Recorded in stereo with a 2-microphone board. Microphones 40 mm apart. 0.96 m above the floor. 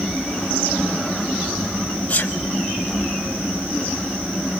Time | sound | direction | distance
2.1 | a sneeze | 35° left (ahead or behind) | 6 m